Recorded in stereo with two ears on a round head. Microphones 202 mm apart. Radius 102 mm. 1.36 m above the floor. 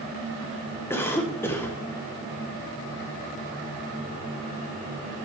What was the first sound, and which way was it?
A cough, 10° left (ahead or behind).